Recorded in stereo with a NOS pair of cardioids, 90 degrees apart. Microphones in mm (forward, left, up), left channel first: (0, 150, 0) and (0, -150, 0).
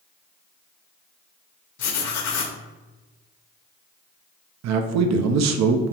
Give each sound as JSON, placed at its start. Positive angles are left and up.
{"t": 1.8, "sound": "writing", "azimuth_deg": 60, "distance_m": 0.9}
{"t": 4.6, "sound": "a man speaking", "azimuth_deg": -65, "distance_m": 0.5}